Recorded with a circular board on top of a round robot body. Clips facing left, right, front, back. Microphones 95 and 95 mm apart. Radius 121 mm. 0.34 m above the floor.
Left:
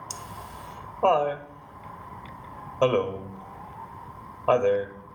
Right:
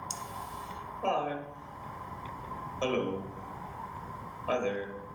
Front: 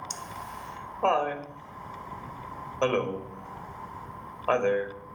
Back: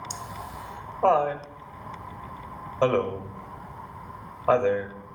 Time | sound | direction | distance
0.1 | laughter | 100° left | 1.5 m